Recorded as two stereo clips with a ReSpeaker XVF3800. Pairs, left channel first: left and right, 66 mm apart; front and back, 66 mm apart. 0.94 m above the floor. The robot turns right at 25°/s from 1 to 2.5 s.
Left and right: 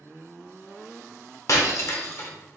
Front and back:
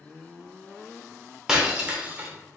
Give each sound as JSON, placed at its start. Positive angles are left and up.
{"t": 1.5, "sound": "breaking glass", "azimuth_deg": 105, "distance_m": 0.8}